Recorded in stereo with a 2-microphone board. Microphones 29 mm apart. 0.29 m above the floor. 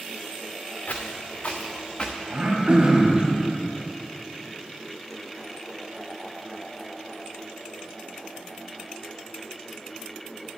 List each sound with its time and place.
0.9 s footsteps: 70° left (ahead or behind), 1.5 m; by 2.2 s 30° left (ahead or behind), 1.6 m
2.3 s throat clearing: 40° right (ahead or behind), 2 m